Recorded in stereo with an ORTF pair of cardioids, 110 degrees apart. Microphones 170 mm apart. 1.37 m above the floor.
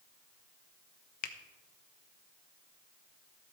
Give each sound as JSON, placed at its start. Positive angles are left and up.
{"t": 1.2, "sound": "a finger snap", "azimuth_deg": 55, "distance_m": 1.1}